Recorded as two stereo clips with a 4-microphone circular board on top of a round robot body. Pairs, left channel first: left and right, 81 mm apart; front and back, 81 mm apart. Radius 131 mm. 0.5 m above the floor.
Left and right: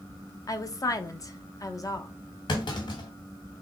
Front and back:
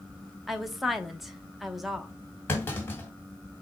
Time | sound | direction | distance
0.5 | a woman speaking | 90° left | 0.9 m
2.5 | a clunk | 65° left | 1.3 m